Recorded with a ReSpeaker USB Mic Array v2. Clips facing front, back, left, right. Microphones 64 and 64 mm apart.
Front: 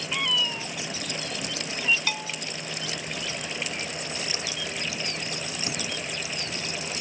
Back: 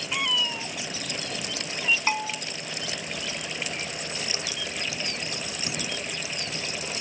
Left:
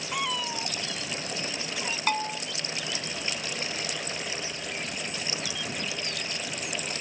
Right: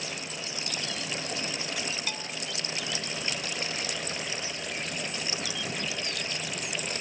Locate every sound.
0.1 s a cat meowing: 95° left
2.1 s a bell: 125° left